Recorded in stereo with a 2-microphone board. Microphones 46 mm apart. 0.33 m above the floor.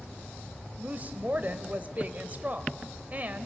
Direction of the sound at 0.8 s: 40° right (ahead or behind).